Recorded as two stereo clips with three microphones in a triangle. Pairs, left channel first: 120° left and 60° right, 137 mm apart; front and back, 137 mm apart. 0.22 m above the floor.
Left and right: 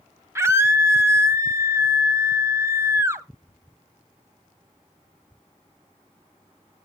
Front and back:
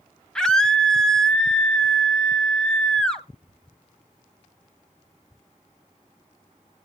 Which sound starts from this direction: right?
A scream, at 0.3 s.